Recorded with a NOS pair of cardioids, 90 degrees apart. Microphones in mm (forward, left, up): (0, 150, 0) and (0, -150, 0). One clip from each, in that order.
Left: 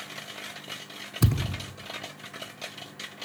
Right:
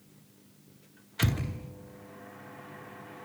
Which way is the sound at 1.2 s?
45° left.